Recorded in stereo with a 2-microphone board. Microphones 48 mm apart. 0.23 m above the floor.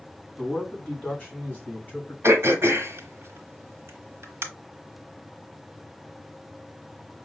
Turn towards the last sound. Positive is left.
turn(degrees=-55)  # may be behind; listen again after turning